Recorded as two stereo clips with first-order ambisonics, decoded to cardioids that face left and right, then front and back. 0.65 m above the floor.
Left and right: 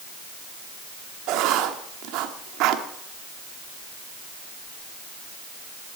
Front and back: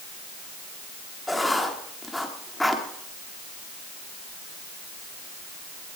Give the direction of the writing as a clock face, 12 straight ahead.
3 o'clock.